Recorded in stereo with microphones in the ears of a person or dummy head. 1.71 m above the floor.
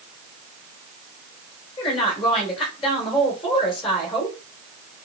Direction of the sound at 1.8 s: 30° left (ahead or behind).